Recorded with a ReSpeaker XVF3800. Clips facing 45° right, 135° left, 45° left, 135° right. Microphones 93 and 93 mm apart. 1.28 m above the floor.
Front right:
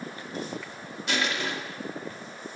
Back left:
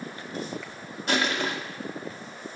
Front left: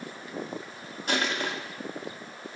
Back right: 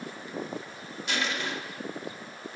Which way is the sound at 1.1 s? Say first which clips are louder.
Back left 3 dB, front left 3 dB; 90° left.